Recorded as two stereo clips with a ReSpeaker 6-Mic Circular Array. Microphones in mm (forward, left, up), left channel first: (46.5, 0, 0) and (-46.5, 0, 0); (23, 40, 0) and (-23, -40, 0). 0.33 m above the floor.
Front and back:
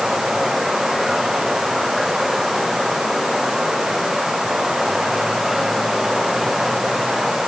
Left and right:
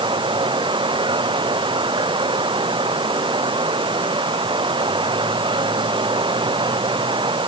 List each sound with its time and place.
0.0 s running water: 95° right